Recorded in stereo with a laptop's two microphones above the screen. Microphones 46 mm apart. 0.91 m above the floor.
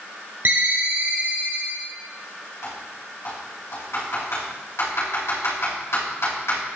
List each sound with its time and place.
0.5 s a ringtone: 40° right (ahead or behind), 1.0 m
2.6 s typing on a keyboard: 75° left (ahead or behind), 3.5 m